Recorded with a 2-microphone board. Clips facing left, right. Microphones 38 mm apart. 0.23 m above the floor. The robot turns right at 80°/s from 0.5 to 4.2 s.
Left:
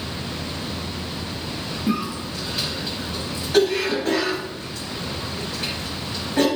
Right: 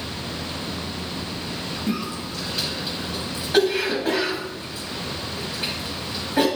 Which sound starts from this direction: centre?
A cough, at 1.9 s.